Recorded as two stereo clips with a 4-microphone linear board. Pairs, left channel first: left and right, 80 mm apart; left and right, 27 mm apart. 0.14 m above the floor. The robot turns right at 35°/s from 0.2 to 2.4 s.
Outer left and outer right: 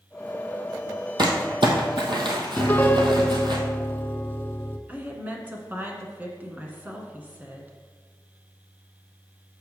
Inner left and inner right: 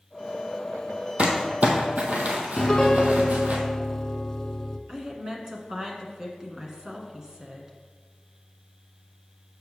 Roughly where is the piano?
Left.